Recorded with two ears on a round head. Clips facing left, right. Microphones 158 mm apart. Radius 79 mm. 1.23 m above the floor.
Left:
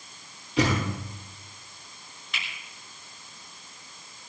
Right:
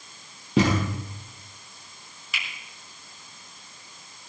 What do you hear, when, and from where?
0.6 s a thud: 50° right (ahead or behind), 6 m
2.3 s a finger snap: 5° right (ahead or behind), 6 m